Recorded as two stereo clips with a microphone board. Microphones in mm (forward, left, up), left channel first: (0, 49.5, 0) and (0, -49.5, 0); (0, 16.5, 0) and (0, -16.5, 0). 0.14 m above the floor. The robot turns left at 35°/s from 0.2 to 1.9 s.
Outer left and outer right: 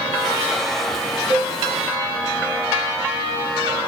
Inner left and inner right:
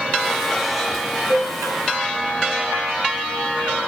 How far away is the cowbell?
About 1.0 m.